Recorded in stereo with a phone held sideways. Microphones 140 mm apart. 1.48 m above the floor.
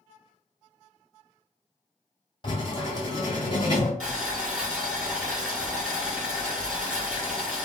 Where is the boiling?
5° right (ahead or behind), 1.4 m.